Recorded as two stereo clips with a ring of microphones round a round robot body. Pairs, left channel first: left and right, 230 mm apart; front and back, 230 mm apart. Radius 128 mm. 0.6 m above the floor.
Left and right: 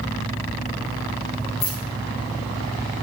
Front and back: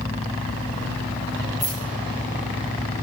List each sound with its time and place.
1.6 s keys jangling: 75° left, 5.5 m